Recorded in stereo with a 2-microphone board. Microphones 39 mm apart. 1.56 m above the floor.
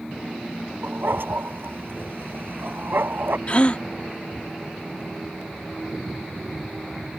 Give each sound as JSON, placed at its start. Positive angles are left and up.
{"t": 0.8, "sound": "a dog barking", "side_deg": -70}
{"t": 3.5, "sound": "a gasp", "side_deg": 35}